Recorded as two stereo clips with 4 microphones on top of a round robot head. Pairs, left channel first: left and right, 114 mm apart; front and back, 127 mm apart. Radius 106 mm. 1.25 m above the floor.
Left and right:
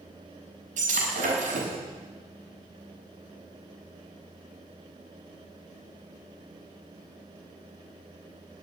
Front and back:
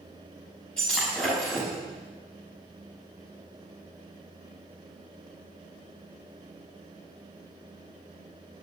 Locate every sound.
0.8 s breaking glass: 85° right, 5.5 m